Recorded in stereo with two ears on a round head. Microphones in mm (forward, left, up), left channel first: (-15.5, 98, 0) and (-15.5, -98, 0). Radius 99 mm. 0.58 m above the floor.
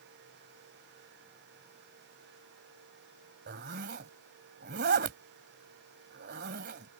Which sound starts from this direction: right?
A zipper, at 3.5 s.